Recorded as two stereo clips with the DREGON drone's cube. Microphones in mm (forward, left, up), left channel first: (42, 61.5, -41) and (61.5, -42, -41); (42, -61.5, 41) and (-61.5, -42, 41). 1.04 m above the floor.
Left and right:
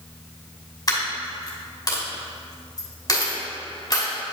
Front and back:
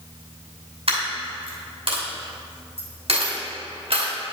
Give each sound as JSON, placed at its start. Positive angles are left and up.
{"t": 0.9, "sound": "a dropped coin", "azimuth_deg": 155, "distance_m": 2.5}